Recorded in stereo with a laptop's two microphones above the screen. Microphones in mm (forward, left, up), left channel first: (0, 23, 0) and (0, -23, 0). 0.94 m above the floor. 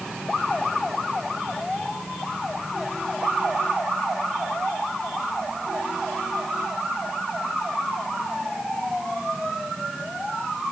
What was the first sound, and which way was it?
Only background noise.